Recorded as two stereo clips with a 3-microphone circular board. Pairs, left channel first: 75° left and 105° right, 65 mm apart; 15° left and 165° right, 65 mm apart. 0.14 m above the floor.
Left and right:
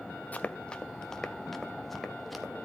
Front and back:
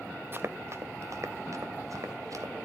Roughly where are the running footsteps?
Behind left.